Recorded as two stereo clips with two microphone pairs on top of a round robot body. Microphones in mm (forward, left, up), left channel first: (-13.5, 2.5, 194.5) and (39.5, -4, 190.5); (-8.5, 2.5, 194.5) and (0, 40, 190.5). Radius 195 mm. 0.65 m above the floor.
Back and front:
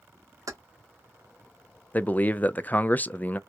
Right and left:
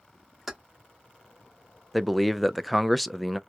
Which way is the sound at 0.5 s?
10° right.